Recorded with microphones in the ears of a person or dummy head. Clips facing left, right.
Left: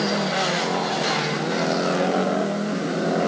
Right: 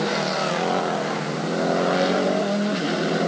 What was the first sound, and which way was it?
Only background noise.